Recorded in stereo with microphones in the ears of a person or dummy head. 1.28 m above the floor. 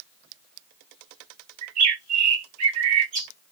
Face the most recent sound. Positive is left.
turn(degrees=-40)  # may be behind; listen again after turning